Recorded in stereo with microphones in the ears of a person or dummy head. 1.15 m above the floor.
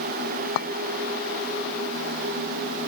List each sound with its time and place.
0.6 s a clink: 65° left (ahead or behind)